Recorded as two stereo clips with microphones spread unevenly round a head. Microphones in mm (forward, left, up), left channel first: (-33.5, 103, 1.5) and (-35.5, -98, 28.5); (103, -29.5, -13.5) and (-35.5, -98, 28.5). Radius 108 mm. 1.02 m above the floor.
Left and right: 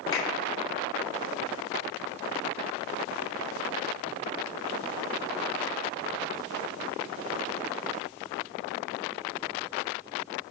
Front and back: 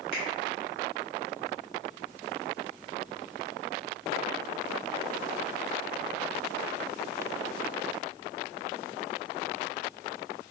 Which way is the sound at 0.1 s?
160° left.